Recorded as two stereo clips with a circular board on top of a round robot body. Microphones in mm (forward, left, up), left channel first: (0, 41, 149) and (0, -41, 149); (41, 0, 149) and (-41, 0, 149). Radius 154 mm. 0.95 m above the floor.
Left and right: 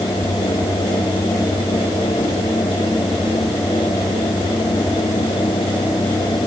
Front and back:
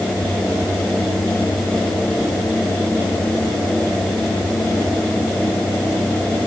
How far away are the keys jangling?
I don't hear keys jangling.